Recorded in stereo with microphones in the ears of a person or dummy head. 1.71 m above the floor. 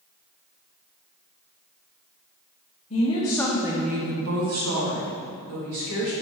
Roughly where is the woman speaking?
Left.